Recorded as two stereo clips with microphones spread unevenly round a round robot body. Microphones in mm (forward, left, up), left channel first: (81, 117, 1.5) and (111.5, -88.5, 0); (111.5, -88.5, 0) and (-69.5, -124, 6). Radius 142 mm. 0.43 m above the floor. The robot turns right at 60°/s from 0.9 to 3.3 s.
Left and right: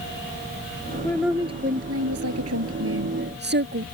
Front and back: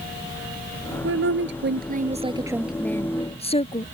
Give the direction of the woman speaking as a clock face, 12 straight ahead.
6 o'clock.